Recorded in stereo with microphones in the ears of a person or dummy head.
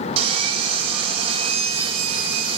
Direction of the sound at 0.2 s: 30° right (ahead or behind).